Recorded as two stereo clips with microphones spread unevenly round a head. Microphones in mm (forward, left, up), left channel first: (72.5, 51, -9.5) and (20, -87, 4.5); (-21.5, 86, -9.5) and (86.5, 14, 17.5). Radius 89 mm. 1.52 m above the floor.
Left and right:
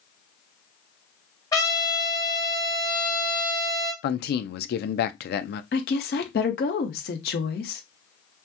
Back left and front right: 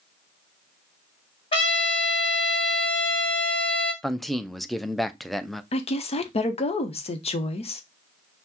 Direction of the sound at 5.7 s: 100° left.